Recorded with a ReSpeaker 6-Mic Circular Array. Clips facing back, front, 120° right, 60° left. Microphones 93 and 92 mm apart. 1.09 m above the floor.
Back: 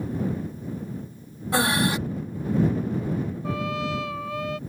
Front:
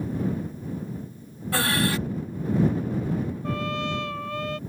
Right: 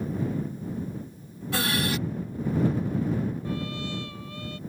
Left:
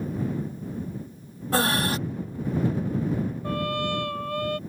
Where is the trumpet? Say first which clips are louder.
Even, left 5 dB; 90° left.